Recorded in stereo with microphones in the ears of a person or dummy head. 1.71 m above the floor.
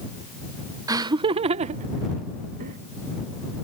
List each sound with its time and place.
0.9 s laughter: 20° right (ahead or behind); by 2.8 s 55° right (ahead or behind)